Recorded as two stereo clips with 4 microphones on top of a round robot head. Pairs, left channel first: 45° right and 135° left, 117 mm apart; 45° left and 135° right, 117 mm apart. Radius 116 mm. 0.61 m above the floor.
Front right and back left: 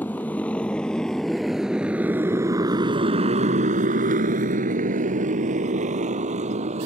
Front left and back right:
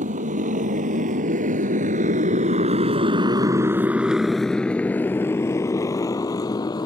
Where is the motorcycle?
125° right; by 6.9 s 105° left.